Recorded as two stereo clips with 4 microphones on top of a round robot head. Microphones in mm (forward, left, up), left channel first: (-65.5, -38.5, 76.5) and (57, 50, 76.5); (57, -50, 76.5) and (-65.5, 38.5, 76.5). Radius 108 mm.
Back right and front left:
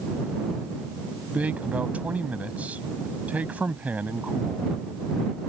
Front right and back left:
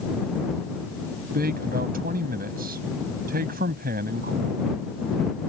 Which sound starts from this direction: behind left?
A man speaking, at 1.3 s.